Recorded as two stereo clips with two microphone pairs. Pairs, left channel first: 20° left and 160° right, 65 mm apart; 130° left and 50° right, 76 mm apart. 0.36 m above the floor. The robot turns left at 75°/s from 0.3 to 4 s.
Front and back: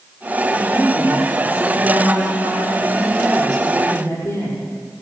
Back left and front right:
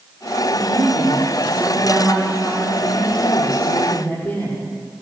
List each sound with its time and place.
0.5 s a woman speaking: 30° right, 8.5 m; by 4.7 s 65° left, 8.5 m